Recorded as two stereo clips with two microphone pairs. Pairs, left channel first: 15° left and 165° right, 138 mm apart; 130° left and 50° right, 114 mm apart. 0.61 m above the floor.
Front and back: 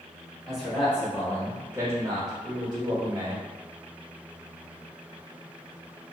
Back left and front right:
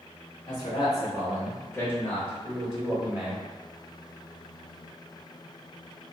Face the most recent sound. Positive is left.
turn(degrees=-125)